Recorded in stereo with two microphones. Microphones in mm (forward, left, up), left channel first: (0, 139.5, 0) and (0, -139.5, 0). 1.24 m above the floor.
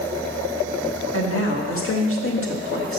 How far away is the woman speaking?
About 1.6 m.